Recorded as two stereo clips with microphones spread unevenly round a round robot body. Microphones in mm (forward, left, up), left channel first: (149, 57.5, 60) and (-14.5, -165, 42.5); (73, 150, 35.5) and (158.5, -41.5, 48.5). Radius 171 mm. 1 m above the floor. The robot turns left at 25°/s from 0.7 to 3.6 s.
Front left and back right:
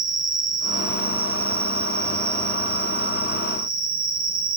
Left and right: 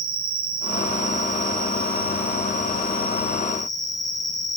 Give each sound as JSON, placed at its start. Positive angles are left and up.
{"t": 0.0, "sound": "an insect", "azimuth_deg": -90, "distance_m": 1.2}